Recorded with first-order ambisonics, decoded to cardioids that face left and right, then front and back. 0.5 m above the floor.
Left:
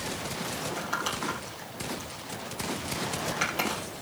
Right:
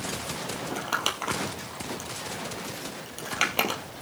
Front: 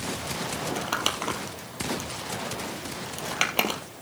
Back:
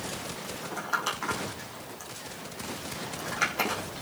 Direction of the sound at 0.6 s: 35° right.